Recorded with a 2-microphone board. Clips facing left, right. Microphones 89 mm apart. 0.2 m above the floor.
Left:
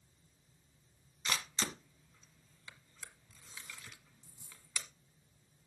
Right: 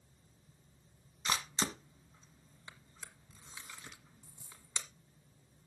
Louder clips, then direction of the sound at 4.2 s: Right 2 dB; 75° right (ahead or behind).